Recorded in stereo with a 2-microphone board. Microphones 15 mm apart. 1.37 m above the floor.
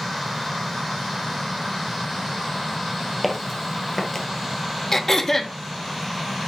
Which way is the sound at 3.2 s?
5° right (ahead or behind).